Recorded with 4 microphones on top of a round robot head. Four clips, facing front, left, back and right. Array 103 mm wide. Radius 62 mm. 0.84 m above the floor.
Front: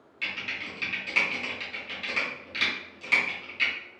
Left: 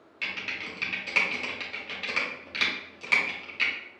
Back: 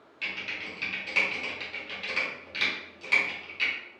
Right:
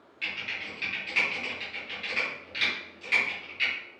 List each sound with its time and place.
0.2 s typing on a keyboard: 95° left, 1.7 m